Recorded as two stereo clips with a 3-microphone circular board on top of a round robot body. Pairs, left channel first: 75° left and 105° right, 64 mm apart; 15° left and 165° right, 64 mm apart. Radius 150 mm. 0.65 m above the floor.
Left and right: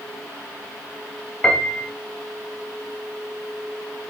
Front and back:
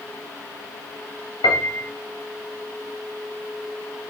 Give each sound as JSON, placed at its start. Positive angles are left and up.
{"t": 1.4, "sound": "a piano", "azimuth_deg": -5, "distance_m": 0.6}